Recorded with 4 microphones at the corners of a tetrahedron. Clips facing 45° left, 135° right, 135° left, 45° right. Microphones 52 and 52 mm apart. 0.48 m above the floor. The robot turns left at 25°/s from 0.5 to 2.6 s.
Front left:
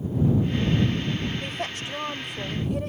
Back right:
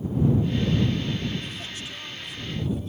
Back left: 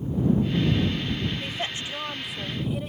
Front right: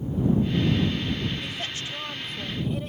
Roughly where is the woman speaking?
Left.